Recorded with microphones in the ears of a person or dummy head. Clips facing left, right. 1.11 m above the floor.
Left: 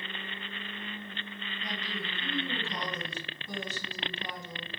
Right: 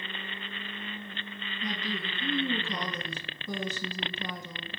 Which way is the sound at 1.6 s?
60° right (ahead or behind).